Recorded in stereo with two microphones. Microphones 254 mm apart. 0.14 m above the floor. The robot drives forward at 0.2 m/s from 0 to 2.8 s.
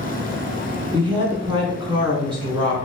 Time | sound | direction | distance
0.9 | a woman speaking | 20° right (ahead or behind) | 1.3 m